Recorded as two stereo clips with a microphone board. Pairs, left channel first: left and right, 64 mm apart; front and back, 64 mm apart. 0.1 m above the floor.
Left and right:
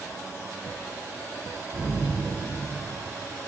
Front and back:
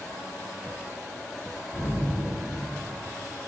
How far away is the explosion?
About 7 m.